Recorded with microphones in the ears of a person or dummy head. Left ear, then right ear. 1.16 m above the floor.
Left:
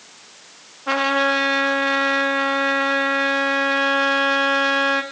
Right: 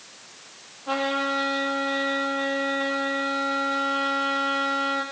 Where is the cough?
I don't hear a cough.